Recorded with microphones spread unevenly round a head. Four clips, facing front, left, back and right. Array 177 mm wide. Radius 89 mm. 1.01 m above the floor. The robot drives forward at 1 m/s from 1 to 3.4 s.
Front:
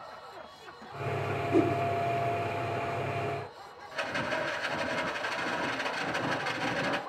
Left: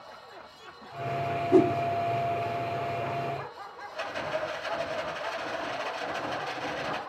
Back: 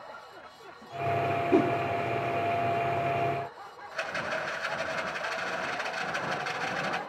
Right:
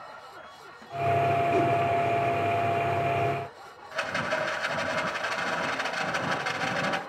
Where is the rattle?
75° right, 3 m.